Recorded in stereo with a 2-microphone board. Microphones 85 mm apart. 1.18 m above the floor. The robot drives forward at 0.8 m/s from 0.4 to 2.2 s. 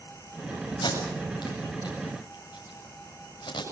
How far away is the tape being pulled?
About 7.5 m.